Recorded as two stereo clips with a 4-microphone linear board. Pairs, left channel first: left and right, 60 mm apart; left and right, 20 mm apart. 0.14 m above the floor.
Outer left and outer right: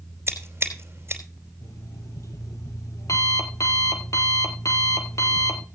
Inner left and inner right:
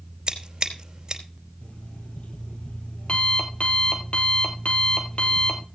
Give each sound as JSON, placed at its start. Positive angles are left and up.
{"t": 0.3, "sound": "scissors", "side_deg": -45, "distance_m": 3.0}
{"t": 1.6, "sound": "an alarm clock", "side_deg": 60, "distance_m": 2.0}